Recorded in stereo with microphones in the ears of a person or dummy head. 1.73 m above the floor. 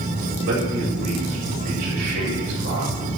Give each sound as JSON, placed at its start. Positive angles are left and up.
{"t": 0.4, "sound": "a man speaking", "side_deg": -60, "distance_m": 7.5}